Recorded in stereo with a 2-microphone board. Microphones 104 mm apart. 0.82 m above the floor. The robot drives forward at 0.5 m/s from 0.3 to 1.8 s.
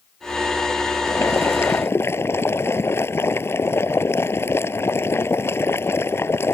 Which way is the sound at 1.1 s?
25° left (ahead or behind).